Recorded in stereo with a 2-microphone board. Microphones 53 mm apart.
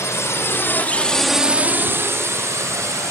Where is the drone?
65° left (ahead or behind); by 3.1 s 70° right (ahead or behind).